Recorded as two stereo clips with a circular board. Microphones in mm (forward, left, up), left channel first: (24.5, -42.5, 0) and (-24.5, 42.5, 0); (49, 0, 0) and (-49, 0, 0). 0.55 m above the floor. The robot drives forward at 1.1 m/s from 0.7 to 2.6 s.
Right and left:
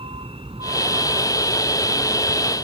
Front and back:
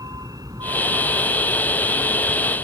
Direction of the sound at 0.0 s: 130° left.